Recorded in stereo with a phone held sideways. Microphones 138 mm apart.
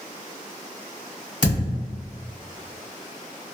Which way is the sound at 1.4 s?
65° left (ahead or behind).